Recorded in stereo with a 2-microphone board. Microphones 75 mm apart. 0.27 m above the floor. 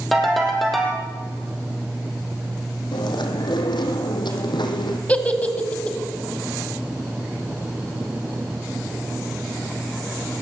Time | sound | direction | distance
0.1 | a ringtone | centre (ahead or behind) | 4.5 m
2.9 | chewing | 85° left | 2.5 m
5.1 | a giggle | 20° left (ahead or behind) | 1.9 m